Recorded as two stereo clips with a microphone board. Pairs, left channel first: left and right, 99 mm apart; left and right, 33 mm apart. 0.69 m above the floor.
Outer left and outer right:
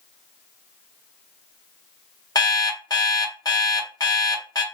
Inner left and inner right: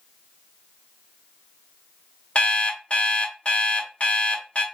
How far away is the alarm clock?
About 0.7 m.